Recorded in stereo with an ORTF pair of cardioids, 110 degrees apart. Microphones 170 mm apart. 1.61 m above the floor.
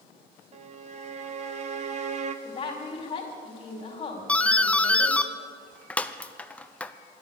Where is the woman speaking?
30° left, 4 m.